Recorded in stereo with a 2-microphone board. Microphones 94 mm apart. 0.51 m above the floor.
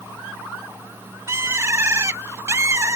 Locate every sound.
1.3 s a bird: 30° right (ahead or behind)